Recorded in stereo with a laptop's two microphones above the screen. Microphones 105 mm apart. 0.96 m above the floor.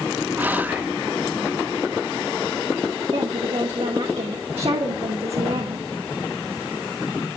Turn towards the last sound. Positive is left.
turn(degrees=-75)  # may be behind; listen again after turning